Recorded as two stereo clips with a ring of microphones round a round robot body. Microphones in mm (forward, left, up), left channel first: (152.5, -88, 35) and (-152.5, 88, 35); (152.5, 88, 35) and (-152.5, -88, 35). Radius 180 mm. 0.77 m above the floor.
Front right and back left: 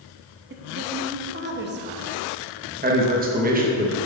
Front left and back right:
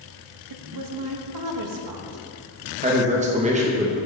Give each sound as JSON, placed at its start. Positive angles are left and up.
{"t": 0.5, "sound": "a woman speaking", "azimuth_deg": -155, "distance_m": 0.9}
{"t": 2.8, "sound": "a man speaking", "azimuth_deg": 170, "distance_m": 1.0}